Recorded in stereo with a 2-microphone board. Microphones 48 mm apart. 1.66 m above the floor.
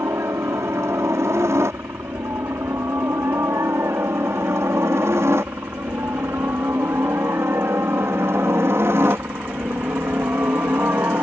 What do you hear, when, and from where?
0.0 s a helicopter: 70° right (ahead or behind); by 11.2 s 50° right (ahead or behind)